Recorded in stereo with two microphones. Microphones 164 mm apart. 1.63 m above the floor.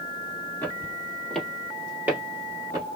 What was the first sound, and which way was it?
Footsteps, 15° left (ahead or behind).